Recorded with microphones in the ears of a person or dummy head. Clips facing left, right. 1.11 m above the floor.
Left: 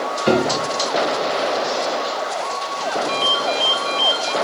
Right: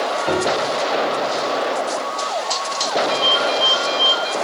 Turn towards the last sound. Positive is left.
turn(degrees=55)  # may be behind; listen again after turning